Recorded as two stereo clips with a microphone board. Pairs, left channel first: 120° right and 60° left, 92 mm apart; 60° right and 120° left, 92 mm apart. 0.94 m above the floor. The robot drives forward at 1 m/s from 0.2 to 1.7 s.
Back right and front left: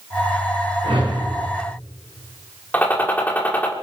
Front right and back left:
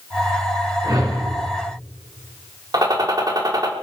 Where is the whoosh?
75° left, 4 m; by 1.2 s 80° left, 4 m.